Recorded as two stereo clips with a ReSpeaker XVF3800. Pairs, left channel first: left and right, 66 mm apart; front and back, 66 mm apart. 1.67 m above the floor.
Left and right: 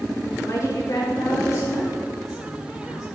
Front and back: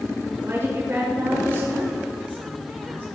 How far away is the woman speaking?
About 6.5 m.